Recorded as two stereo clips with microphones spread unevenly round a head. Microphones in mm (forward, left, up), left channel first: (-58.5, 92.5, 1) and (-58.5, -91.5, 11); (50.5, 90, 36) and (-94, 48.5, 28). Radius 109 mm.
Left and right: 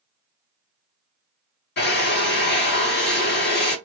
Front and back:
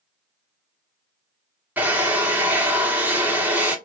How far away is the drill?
About 1.1 m.